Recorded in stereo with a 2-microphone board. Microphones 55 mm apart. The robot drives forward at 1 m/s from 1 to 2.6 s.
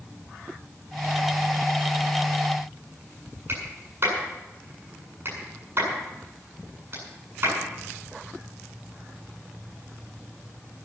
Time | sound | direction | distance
3.5 | a clap | 50° right (ahead or behind) | 7.5 m